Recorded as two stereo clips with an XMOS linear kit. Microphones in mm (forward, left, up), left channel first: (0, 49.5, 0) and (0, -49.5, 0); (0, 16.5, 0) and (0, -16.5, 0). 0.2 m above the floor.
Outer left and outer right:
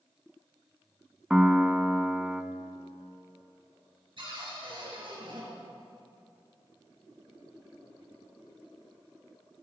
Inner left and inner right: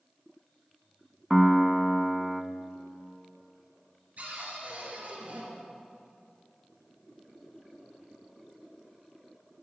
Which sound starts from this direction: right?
A cupboard door, at 4.2 s.